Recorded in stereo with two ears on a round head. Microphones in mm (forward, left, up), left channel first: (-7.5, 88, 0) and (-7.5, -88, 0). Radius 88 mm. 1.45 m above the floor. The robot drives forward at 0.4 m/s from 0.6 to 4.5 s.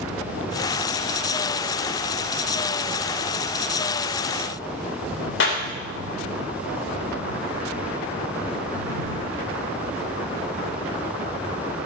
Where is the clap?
65° left (ahead or behind), 5 m.